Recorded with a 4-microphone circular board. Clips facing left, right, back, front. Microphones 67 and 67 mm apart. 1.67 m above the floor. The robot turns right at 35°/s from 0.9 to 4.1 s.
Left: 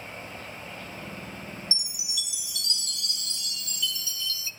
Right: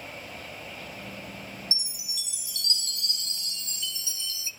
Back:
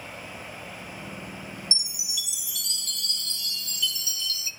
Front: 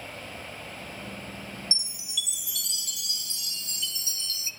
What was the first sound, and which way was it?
A chime, 120° right.